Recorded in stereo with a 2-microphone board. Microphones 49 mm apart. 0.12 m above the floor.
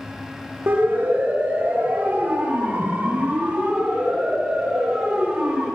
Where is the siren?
50° right (ahead or behind), 7 m; by 5.7 s 20° right (ahead or behind), 10 m.